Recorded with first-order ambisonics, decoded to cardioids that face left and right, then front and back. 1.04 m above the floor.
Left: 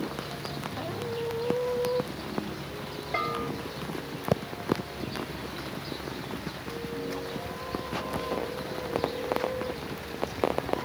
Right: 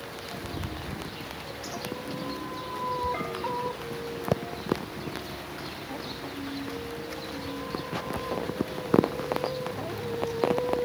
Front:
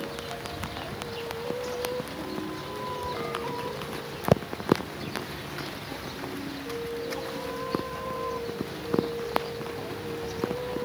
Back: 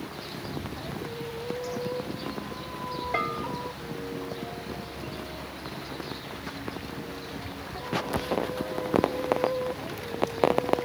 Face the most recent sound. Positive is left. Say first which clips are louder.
# left 3 dB, back 3 dB
turn(degrees=155)